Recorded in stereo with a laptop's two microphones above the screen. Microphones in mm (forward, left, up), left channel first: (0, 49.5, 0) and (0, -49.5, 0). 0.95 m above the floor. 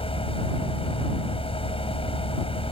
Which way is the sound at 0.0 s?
70° left (ahead or behind).